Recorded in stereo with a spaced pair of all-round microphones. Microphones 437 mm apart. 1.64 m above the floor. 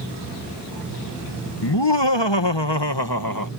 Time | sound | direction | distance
1.6 | laughter | 70° left (ahead or behind) | ?